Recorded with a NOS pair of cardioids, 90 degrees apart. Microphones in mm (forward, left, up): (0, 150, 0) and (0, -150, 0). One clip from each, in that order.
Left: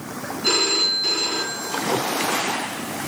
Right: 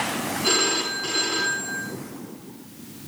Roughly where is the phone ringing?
Ahead.